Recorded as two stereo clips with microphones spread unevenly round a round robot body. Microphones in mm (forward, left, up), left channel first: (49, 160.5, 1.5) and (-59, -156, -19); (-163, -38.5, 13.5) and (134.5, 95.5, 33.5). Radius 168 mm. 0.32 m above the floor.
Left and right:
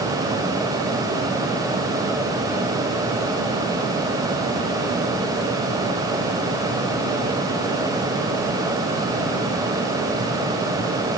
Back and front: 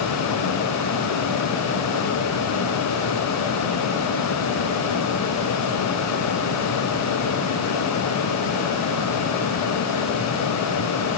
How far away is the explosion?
No explosion in this recording.